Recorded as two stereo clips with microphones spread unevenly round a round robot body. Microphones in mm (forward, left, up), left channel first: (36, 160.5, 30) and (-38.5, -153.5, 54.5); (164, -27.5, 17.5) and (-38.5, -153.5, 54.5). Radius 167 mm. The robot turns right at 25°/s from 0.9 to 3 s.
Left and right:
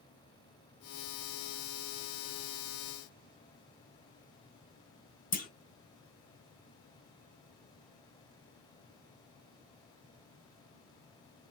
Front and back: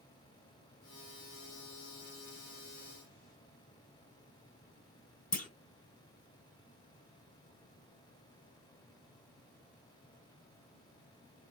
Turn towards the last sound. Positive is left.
turn(degrees=35)